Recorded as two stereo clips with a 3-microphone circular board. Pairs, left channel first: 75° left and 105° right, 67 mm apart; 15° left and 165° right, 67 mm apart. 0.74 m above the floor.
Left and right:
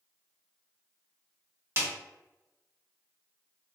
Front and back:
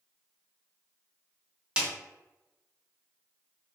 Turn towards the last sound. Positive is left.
turn(degrees=-100)